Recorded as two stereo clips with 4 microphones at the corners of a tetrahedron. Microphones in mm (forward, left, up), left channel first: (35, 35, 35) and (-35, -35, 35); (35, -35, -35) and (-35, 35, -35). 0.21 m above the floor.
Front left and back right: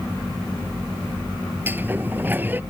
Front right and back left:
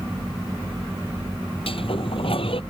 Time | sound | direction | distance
1.7 | a sliding door | 65° right | ?